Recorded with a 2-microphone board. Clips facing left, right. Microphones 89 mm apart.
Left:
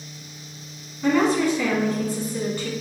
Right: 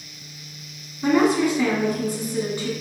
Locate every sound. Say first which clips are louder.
1.0 s a woman speaking: right 1 dB; 15° right (ahead or behind), 1.1 m